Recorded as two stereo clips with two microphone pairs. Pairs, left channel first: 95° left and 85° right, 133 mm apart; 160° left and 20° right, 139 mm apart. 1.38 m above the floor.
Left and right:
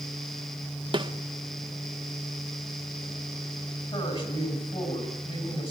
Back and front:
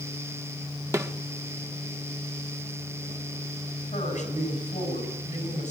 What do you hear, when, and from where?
0.9 s a snare drum: 80° right, 0.9 m
3.9 s a woman speaking: 130° left, 7 m